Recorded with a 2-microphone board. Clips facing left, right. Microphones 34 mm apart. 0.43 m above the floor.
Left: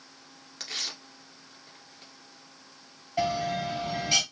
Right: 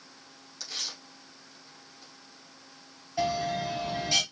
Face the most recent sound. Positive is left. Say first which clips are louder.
# left 1 dB
turn(degrees=30)  # may be behind; listen again after turning